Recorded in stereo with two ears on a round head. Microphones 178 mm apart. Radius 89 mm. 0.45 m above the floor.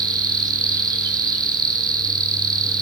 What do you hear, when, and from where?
0.0 s an insect: 20° right (ahead or behind), 1.6 m